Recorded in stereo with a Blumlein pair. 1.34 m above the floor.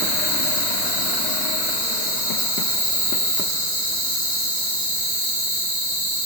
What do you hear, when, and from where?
0.0 s an insect: 40° left, 1.3 m